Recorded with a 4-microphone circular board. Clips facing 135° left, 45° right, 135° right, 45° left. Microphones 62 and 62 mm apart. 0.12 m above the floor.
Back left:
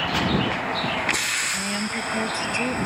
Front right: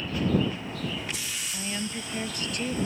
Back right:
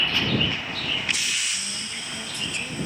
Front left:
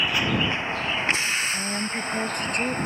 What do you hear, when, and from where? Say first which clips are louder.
0.0 s a vehicle: back left 3 dB, front left 1 dB; 125° left; by 2.9 s 100° left
1.5 s a woman speaking: back left 6 dB, front left 7 dB; 75° left